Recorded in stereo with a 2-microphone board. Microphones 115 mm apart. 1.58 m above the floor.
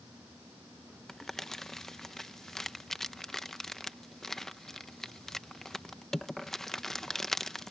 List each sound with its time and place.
1.1 s crumpling: 5° left (ahead or behind)